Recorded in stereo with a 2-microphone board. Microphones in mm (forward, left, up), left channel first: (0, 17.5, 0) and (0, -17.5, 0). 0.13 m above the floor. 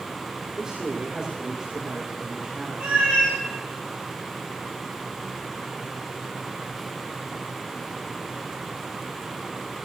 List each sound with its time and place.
0.6 s a man speaking: 25° right (ahead or behind), 9 m
2.8 s a cat meowing: 50° right (ahead or behind), 5 m